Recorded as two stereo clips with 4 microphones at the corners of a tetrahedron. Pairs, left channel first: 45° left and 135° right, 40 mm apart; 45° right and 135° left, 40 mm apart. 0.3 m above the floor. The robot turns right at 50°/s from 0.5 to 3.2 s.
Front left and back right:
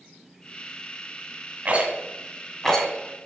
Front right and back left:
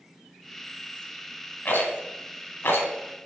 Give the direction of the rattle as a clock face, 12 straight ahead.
3 o'clock.